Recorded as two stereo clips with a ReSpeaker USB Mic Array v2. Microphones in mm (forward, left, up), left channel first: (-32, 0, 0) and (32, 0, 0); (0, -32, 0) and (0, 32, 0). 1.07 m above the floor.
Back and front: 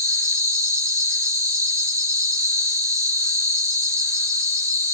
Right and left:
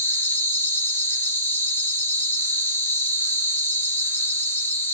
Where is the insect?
35° right, 0.8 m.